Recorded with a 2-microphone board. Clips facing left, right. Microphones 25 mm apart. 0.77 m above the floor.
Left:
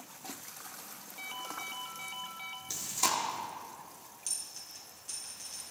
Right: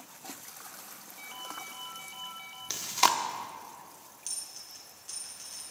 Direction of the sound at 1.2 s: 20° left (ahead or behind).